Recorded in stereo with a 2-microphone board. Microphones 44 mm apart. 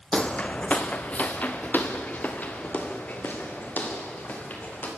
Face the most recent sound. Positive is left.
turn(degrees=40)  # may be behind; listen again after turning